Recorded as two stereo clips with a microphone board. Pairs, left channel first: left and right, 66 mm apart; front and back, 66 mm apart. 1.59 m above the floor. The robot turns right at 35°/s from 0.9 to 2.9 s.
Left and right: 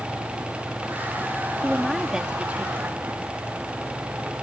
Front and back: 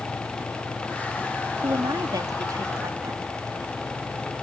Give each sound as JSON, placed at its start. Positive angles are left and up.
{"t": 1.6, "sound": "a woman speaking", "azimuth_deg": 170}